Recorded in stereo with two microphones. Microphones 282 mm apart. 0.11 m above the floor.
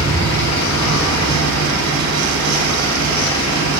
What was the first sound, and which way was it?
An engine running, 80° left.